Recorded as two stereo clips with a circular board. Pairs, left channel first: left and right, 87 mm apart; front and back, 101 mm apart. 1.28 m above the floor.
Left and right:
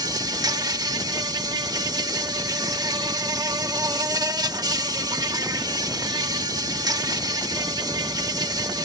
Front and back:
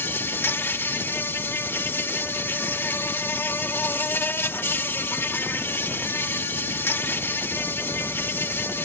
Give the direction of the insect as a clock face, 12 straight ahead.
2 o'clock.